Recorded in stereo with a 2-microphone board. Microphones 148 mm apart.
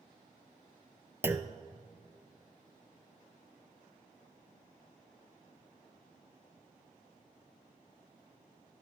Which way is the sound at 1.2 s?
15° right (ahead or behind).